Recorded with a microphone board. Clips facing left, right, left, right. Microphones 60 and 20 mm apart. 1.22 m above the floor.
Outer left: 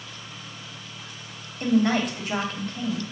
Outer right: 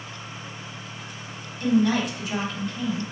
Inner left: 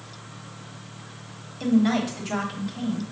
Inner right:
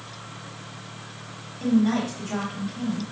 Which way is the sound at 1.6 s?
45° left (ahead or behind).